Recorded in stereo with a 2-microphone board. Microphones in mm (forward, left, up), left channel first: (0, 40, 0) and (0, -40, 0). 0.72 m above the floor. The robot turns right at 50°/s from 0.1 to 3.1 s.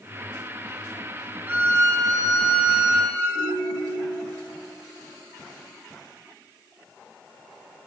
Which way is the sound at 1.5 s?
160° right.